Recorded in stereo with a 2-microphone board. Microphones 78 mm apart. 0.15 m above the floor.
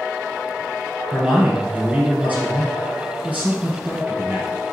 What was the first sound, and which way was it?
A man speaking, 15° right (ahead or behind).